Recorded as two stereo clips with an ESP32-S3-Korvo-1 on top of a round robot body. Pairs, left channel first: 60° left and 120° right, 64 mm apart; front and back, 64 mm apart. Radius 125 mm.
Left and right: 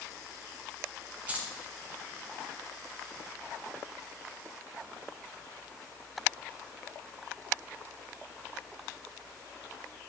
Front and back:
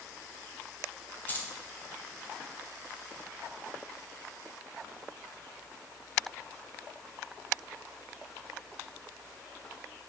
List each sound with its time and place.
1.3 s keys jangling: 55° right, 1.4 m